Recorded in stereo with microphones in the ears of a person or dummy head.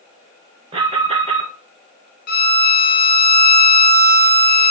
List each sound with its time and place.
0.7 s an alarm: 25° right (ahead or behind), 0.5 m
2.3 s a violin: 50° left (ahead or behind), 0.5 m